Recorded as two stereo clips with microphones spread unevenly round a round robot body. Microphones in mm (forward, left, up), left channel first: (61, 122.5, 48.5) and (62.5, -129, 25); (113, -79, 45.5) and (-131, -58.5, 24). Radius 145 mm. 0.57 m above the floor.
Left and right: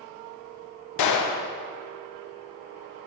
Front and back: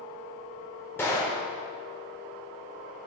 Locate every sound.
1.0 s a gunshot: 80° left, 0.6 m